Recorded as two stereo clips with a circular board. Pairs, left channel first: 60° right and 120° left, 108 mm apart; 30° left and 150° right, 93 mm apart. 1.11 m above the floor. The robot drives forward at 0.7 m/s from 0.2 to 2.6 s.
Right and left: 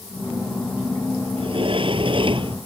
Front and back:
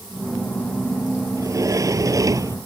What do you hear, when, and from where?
1.4 s a sliding door: 155° left; by 2.6 s 160° left